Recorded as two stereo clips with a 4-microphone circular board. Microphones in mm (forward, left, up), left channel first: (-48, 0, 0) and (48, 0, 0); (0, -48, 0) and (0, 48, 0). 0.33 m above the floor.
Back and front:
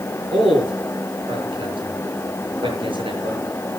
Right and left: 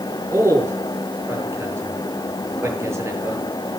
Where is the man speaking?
30° left, 7 m.